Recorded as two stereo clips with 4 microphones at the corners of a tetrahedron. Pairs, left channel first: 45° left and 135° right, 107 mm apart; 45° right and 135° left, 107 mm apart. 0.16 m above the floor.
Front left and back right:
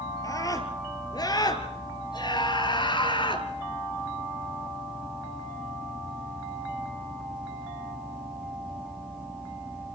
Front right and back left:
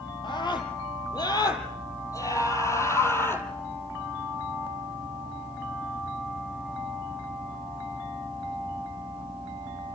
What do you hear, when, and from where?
0.2 s a scream: 5° right, 5 m; by 3.5 s 20° left, 4.5 m